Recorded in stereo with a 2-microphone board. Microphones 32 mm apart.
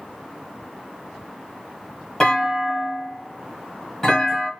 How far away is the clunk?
About 1.0 m.